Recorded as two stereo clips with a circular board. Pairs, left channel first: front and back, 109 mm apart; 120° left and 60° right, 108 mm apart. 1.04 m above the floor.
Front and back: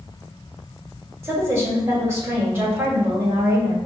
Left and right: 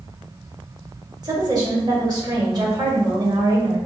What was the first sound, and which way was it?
A woman speaking, 115° right.